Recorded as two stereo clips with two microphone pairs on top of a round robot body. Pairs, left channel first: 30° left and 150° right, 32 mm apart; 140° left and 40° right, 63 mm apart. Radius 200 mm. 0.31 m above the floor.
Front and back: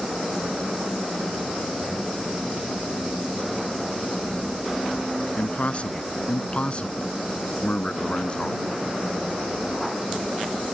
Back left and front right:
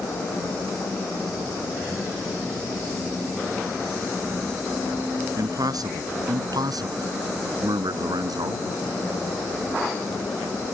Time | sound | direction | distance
5.4 | a man speaking | 25° right | ?